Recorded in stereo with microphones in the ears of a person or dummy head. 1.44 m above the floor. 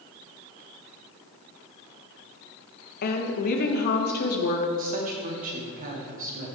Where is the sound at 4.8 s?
40° right (ahead or behind), 2.5 m.